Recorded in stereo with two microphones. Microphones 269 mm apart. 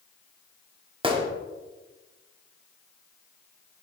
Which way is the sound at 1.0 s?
20° right (ahead or behind).